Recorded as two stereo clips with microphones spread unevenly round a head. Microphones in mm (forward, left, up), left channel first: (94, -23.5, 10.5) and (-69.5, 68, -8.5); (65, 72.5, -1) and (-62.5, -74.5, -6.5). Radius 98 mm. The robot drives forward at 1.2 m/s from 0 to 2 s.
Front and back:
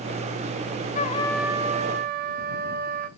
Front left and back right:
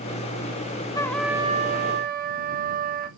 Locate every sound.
0.9 s a trumpet: 15° right, 0.7 m; by 3.1 s 170° right, 0.9 m